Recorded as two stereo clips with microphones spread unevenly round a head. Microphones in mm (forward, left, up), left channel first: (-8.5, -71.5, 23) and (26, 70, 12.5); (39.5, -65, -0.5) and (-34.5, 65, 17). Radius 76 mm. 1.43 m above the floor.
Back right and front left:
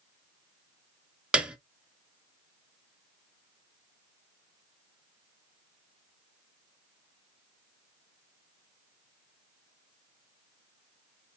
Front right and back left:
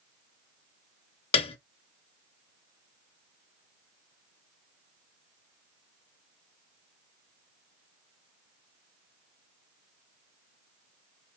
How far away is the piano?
About 0.6 m.